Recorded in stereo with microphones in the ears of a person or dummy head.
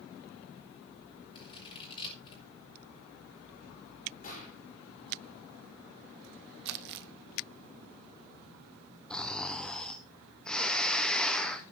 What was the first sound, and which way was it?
Scissors, 25° left (ahead or behind).